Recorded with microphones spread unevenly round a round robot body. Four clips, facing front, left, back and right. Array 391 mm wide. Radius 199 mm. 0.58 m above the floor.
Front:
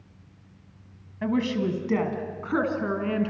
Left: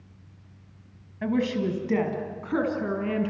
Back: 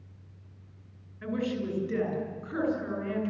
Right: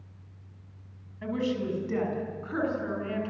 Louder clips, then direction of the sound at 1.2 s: Left 4 dB, front 6 dB; 35° left.